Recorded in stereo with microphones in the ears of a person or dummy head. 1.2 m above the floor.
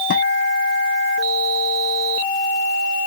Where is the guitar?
55° left (ahead or behind).